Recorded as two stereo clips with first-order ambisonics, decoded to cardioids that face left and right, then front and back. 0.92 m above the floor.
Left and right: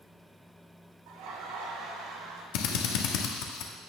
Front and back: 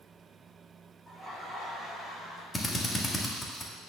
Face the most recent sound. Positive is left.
turn(degrees=80)